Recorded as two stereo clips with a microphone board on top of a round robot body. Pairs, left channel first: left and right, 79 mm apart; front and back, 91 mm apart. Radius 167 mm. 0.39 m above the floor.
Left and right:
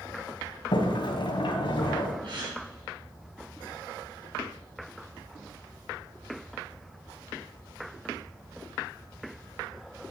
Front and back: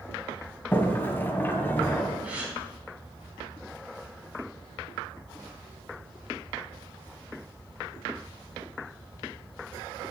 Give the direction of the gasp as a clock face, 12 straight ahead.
3 o'clock.